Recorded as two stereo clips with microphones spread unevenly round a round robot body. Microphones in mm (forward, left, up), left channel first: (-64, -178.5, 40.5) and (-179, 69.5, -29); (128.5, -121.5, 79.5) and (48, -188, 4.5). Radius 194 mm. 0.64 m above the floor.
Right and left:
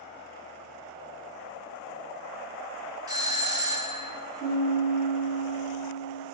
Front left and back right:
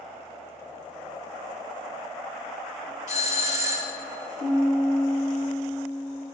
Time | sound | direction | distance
3.1 | a doorbell | 75° left | 1.0 m
4.4 | a piano | 25° left | 6 m